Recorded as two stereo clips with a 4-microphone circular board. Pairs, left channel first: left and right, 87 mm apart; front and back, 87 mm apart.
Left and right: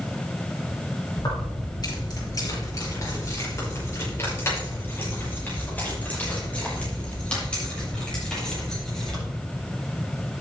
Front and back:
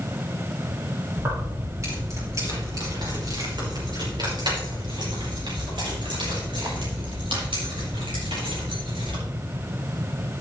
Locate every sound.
1.2 s keys jangling: 125° left, 5 m; by 9.2 s 175° left, 8.5 m